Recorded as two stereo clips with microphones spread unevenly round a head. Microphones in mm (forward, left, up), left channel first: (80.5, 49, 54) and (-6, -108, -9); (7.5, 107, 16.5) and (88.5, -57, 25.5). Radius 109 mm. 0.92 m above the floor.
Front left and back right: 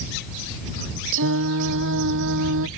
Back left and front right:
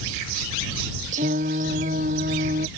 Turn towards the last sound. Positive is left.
turn(degrees=-125)